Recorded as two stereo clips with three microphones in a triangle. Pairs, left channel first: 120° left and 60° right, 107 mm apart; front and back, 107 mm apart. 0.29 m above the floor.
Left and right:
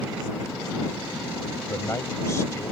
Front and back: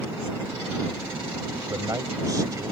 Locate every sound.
1.7 s a man speaking: 160° left